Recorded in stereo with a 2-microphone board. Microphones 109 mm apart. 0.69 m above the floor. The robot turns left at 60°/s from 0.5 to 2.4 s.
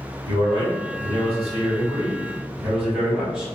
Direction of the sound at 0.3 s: 60° right.